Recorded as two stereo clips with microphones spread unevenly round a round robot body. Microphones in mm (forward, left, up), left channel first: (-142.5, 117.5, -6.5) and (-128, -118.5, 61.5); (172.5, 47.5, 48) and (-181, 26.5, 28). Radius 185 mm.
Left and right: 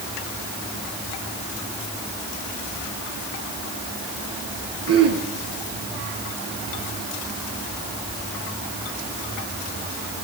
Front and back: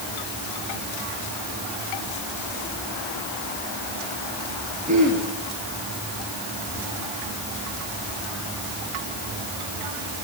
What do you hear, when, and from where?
4.9 s throat clearing: 105° right, 7.5 m